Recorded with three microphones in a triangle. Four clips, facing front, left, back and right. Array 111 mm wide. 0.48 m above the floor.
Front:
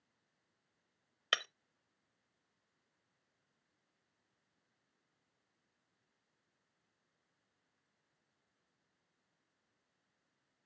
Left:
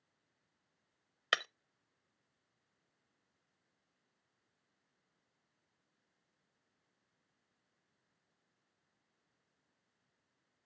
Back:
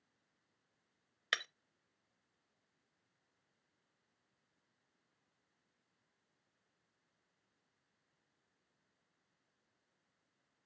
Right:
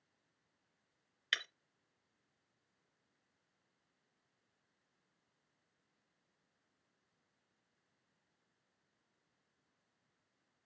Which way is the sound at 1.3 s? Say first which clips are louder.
Left 6 dB, front 2 dB; 70° left.